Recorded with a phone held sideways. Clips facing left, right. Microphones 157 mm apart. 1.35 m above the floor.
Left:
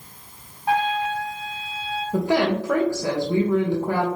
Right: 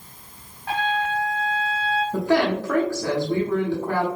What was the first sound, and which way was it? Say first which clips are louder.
A trumpet: left 2 dB; 15° left (ahead or behind).